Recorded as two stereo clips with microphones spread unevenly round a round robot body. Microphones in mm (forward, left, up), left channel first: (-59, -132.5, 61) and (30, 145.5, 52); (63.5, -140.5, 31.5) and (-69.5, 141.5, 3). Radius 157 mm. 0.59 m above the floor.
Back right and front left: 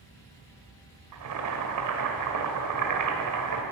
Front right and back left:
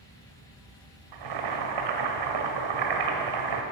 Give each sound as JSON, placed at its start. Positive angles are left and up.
{"t": 1.1, "sound": "boiling", "azimuth_deg": 105, "distance_m": 1.5}